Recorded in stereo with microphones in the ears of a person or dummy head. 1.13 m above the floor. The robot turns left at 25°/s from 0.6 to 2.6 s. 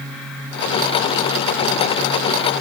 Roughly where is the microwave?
I don't hear a microwave.